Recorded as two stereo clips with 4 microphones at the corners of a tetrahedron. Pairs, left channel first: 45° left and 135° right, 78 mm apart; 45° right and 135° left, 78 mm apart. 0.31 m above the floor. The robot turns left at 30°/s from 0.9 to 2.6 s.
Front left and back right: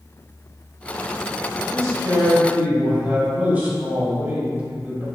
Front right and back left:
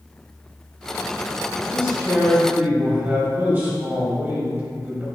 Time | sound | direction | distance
1.7 | a man speaking | 160° right | 1.3 m